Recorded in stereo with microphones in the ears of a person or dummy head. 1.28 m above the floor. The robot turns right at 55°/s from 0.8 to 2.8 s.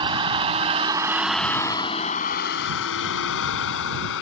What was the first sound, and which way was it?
A vehicle, 20° right (ahead or behind).